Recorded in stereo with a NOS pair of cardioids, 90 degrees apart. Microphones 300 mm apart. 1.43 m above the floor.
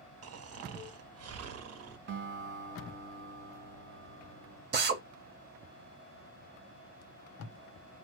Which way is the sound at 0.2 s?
55° right.